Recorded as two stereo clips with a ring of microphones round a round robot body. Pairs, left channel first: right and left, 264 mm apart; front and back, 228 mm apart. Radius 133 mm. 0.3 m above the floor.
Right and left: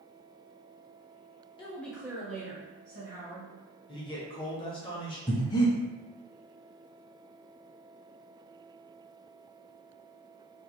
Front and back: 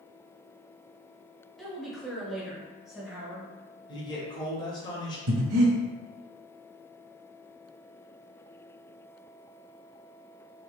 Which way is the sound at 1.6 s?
85° right.